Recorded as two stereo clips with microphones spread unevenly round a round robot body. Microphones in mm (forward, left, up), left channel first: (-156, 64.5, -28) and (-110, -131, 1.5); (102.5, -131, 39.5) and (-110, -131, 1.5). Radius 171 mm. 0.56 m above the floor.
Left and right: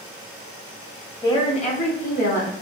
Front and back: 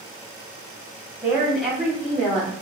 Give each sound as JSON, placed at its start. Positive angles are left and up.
{"t": 1.2, "sound": "a woman speaking", "azimuth_deg": 125, "distance_m": 0.7}